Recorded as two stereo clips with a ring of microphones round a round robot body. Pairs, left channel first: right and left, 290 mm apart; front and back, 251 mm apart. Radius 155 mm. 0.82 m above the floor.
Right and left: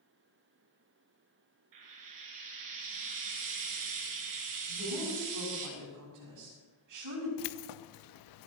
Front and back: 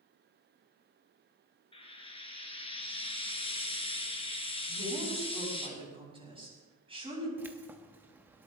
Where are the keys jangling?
95° right, 0.6 m.